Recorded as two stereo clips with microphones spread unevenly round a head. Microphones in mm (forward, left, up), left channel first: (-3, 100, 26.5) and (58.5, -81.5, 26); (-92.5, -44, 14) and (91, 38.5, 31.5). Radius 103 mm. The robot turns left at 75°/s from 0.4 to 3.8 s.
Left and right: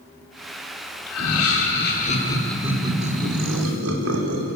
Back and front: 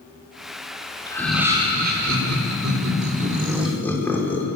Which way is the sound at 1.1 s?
130° left.